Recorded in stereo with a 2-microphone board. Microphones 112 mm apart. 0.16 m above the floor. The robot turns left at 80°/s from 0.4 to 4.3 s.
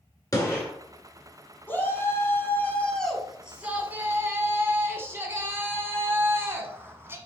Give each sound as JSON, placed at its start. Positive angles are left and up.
{"t": 0.3, "sound": "a gunshot", "side_deg": 35, "distance_m": 2.0}
{"t": 1.7, "sound": "a shout", "side_deg": 20, "distance_m": 1.4}